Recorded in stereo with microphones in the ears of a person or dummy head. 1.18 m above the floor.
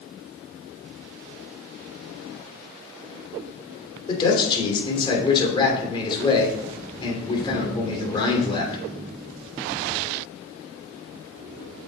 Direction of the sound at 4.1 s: 25° left (ahead or behind).